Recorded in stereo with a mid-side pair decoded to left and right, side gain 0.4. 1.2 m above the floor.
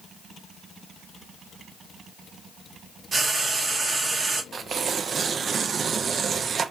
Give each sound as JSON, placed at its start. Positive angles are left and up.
{"t": 3.1, "sound": "frying", "azimuth_deg": -40, "distance_m": 1.6}
{"t": 4.5, "sound": "tearing paper", "azimuth_deg": -50, "distance_m": 0.6}